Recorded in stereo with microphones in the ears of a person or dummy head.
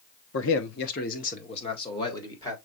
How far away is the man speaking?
About 1.3 m.